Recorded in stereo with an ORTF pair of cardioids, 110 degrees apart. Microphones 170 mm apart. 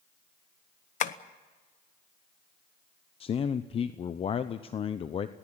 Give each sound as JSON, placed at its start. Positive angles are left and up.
{"t": 1.0, "sound": "tapping", "azimuth_deg": 50, "distance_m": 1.0}
{"t": 3.2, "sound": "a man speaking", "azimuth_deg": 35, "distance_m": 0.8}